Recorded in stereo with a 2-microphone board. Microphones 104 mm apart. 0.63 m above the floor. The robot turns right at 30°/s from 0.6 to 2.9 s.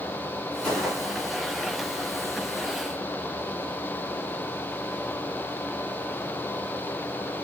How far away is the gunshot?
About 3 m.